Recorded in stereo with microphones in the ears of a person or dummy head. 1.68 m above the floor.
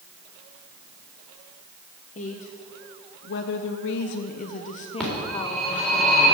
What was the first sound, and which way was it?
A woman speaking, 45° left (ahead or behind).